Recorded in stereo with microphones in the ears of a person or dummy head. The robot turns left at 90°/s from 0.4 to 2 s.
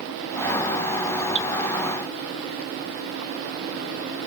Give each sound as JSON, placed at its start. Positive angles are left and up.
{"t": 1.4, "sound": "dripping", "side_deg": -65, "distance_m": 2.5}